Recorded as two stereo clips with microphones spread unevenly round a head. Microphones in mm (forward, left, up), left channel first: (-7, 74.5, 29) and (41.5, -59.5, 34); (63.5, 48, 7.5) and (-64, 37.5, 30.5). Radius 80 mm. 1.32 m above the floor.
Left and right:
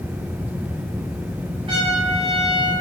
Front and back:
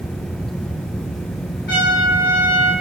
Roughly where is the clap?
No clap in this recording.